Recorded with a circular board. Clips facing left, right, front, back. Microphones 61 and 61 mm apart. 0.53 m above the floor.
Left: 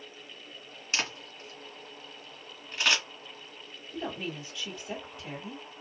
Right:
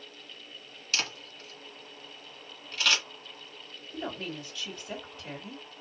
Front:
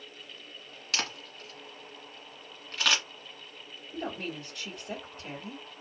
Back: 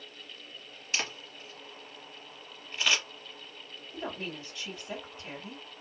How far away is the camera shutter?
About 1.8 m.